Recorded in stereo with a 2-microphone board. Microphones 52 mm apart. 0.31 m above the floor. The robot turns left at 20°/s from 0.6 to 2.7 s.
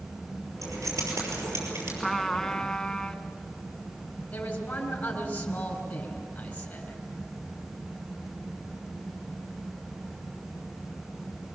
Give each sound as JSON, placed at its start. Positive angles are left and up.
{"t": 0.6, "sound": "keys jangling", "side_deg": -80, "distance_m": 5.5}
{"t": 2.0, "sound": "a trumpet", "side_deg": 0, "distance_m": 1.0}
{"t": 4.3, "sound": "a man speaking", "side_deg": 25, "distance_m": 4.0}